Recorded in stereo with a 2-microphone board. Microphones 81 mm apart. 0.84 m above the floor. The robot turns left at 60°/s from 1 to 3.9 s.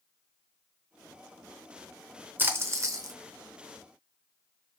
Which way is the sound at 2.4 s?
35° right.